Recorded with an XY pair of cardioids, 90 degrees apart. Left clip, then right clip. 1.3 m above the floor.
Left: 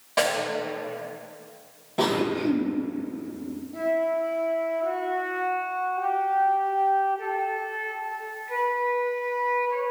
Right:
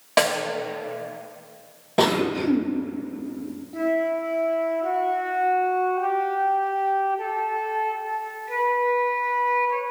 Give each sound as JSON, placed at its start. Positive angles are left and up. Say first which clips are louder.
{"t": 0.2, "sound": "a snare drum", "louder": "right 3 dB", "azimuth_deg": -70, "distance_m": 1.7}
{"t": 2.0, "sound": "a cough", "louder": "right 3 dB", "azimuth_deg": -65, "distance_m": 1.2}
{"t": 3.7, "sound": "a flute", "louder": "right 1 dB", "azimuth_deg": -45, "distance_m": 2.0}